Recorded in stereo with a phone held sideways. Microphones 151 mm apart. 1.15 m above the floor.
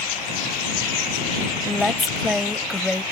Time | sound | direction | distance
1.6 | a woman speaking | centre (ahead or behind) | ?